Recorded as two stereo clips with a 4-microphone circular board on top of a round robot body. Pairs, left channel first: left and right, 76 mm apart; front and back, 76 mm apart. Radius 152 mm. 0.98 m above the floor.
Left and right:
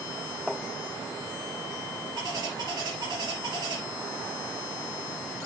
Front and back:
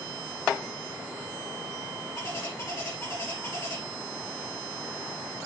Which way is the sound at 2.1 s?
55° right.